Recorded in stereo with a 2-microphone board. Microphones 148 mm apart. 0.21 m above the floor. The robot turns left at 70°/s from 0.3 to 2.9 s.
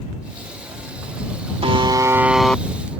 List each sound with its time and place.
1.6 s a buzzer: 120° right; by 2.6 s 165° left